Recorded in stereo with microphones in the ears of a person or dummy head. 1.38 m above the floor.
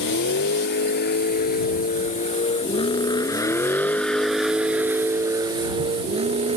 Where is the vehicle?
60° left (ahead or behind); by 6.6 s 40° right (ahead or behind).